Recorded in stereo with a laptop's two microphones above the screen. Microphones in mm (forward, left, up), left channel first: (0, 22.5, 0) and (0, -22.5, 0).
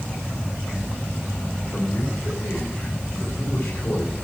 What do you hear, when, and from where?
1.7 s a man speaking: 60° left (ahead or behind), 4.5 m